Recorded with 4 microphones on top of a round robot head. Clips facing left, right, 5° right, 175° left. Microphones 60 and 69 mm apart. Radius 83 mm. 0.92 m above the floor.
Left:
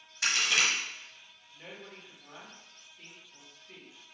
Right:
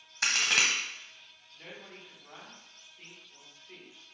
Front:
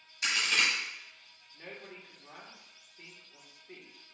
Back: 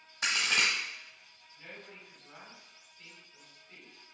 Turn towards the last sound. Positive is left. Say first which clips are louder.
# even, front 3 dB
turn(degrees=15)